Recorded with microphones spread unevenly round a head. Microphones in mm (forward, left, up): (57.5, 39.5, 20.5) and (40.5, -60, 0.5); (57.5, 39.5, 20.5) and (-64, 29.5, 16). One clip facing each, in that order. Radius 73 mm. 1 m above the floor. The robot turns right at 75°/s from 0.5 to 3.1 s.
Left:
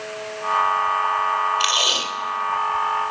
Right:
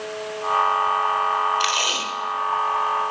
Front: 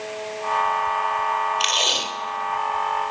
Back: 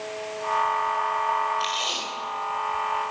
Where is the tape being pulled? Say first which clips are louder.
Left 1 dB, front 3 dB; straight ahead, 1.4 m; by 2.1 s 40° left, 1.4 m.